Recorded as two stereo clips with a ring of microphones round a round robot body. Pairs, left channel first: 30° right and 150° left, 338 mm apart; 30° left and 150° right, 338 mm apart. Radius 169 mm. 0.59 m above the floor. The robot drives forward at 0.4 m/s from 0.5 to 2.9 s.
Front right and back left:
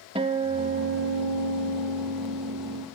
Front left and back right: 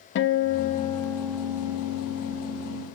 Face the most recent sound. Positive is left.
turn(degrees=155)